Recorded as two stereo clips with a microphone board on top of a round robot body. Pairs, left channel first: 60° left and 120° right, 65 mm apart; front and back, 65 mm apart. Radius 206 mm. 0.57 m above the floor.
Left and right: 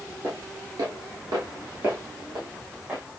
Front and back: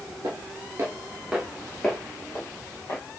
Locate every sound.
0.2 s footsteps: 160° right, 0.9 m; by 3.0 s 50° right, 1.6 m